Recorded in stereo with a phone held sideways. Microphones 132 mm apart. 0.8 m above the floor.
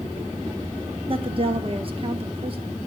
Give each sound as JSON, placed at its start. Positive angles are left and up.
{"t": 1.1, "sound": "a woman speaking", "side_deg": -40, "distance_m": 1.3}